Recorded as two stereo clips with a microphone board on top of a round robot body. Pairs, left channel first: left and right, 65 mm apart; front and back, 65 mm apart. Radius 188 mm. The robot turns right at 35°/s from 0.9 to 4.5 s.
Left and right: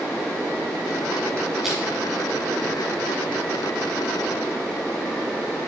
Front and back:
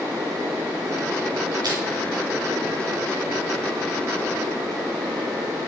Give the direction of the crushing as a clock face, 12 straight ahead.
6 o'clock.